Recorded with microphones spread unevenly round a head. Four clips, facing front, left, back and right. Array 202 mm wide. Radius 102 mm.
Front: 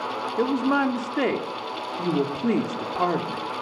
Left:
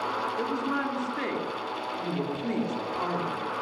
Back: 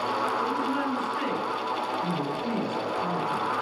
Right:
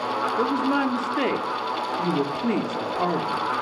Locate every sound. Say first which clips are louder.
0.4 s a woman speaking: right 9 dB, front 5 dB; 35° right, 3 m